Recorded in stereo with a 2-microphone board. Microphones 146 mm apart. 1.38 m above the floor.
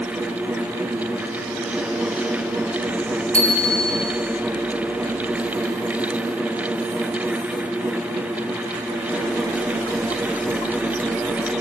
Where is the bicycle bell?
70° right (ahead or behind), 5.5 m.